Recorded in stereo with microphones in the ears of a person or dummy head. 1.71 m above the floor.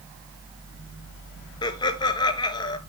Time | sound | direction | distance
1.6 | laughter | 25° left (ahead or behind) | 1.4 m